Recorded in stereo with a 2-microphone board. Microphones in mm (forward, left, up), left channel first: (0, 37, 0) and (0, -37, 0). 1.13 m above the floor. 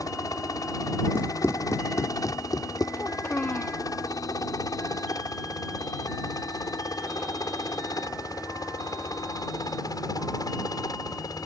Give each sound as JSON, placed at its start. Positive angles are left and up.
{"t": 0.0, "sound": "a helicopter", "side_deg": 50}
{"t": 1.1, "sound": "running footsteps", "side_deg": 30}
{"t": 3.0, "sound": "a child speaking", "side_deg": 25}